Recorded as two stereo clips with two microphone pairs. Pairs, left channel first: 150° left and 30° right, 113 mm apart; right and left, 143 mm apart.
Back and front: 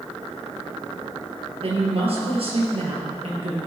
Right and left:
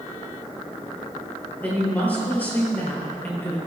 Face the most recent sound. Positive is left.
turn(degrees=-15)